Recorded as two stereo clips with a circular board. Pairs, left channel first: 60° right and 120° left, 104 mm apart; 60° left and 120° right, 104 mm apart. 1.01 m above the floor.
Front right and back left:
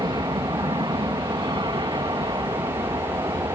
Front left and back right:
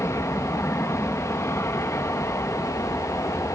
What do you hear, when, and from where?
0.0 s an aircraft: 115° left